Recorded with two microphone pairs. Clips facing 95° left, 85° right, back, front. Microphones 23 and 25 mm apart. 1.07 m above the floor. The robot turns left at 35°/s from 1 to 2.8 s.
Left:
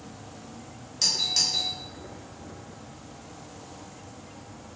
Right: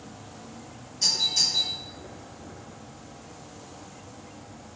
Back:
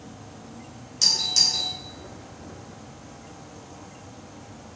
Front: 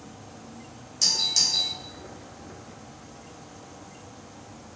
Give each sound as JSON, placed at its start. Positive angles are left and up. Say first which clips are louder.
{"t": 0.0, "sound": "an insect", "louder": "even, back 1 dB", "azimuth_deg": -115, "distance_m": 1.1}
{"t": 1.0, "sound": "a doorbell", "louder": "right 1 dB, back 2 dB", "azimuth_deg": 115, "distance_m": 0.8}